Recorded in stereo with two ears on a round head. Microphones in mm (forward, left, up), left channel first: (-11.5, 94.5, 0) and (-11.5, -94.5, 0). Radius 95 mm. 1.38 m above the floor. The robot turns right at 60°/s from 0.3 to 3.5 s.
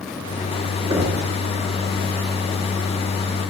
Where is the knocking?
20° right (ahead or behind), 2.5 m; by 1.2 s centre (ahead or behind), 2.5 m.